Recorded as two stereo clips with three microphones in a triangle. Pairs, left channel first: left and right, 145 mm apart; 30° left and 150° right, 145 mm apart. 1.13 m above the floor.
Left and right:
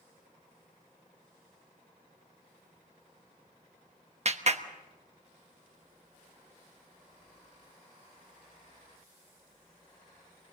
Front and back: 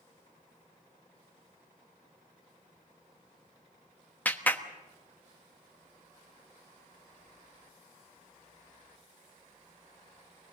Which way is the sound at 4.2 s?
50° right.